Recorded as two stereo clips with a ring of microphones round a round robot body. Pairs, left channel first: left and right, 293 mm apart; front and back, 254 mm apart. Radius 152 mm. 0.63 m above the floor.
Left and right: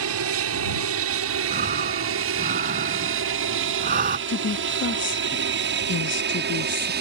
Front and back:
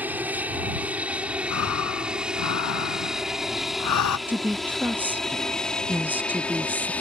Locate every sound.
0.0 s an aircraft: 100° right; by 7.0 s 80° right
1.5 s breathing: 30° right
4.3 s a woman speaking: 100° left